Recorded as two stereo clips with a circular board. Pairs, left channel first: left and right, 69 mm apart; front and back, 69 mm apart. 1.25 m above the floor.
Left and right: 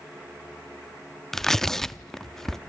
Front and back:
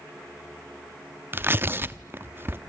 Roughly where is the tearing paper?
Behind.